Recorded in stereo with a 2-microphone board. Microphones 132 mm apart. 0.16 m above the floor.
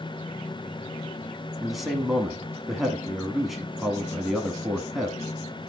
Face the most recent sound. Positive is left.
turn(degrees=0)  # may be behind; listen again after turning